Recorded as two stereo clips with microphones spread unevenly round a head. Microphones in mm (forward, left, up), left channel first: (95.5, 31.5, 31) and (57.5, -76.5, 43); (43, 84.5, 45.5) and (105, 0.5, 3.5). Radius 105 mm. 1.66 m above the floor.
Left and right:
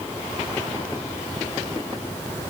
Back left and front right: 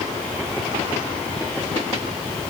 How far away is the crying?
I don't hear crying.